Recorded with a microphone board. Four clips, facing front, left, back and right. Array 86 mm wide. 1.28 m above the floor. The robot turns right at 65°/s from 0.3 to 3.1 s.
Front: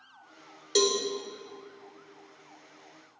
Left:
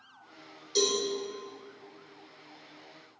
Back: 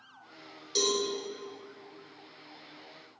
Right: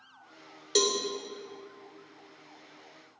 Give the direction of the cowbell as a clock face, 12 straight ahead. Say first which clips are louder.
Right 1 dB, front 5 dB; 2 o'clock.